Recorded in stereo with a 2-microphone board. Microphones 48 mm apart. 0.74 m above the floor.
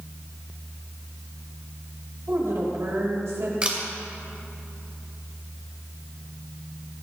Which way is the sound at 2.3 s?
65° right (ahead or behind).